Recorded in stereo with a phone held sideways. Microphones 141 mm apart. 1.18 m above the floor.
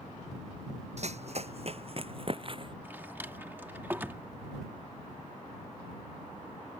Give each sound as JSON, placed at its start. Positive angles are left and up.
{"t": 1.0, "sound": "running footsteps", "side_deg": -55}
{"t": 2.8, "sound": "a drawer", "side_deg": -15}